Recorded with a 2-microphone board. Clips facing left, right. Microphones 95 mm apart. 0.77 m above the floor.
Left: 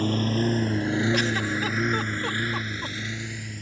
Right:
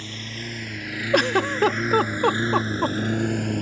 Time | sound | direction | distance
0.0 | a lawn mower | 45° left (ahead or behind) | ?
1.1 | a giggle | 55° right (ahead or behind) | ?